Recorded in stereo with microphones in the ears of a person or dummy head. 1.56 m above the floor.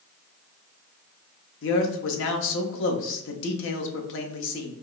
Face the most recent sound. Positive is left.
turn(degrees=70)  # may be behind; listen again after turning